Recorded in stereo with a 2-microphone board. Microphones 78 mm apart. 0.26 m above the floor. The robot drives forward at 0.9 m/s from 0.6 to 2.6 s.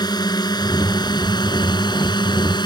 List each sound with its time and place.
0.0 s a drone: 60° left (ahead or behind); by 2.7 s 70° left (ahead or behind)